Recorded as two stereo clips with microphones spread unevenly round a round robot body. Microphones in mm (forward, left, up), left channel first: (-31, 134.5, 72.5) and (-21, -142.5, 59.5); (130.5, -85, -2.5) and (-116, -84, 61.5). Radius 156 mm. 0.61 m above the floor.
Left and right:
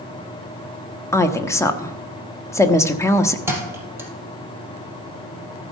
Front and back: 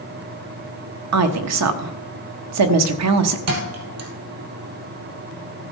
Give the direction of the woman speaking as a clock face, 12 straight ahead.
6 o'clock.